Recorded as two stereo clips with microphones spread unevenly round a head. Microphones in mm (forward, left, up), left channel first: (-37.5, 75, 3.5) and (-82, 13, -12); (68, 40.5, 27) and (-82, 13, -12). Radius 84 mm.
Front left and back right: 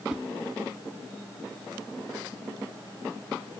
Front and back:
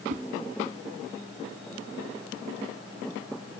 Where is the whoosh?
145° left, 1.1 m.